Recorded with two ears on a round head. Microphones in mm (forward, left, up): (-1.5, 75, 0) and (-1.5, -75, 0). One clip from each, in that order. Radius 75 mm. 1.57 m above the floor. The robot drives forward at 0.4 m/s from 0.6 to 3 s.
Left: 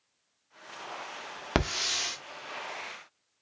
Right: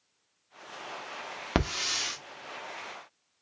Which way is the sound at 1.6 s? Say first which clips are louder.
Left 1 dB; 20° left (ahead or behind).